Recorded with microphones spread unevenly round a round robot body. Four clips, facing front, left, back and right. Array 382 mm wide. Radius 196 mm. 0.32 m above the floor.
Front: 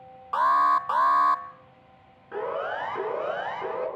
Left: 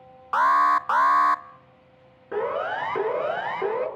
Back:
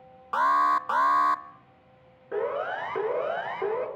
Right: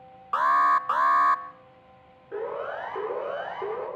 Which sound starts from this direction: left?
A siren, at 2.3 s.